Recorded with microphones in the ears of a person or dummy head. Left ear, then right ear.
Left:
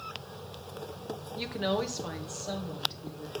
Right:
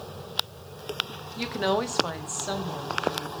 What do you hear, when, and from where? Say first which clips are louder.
1.4 s a woman speaking: right 5 dB; 10° right (ahead or behind), 1.1 m; by 3.4 s 60° right (ahead or behind), 2.5 m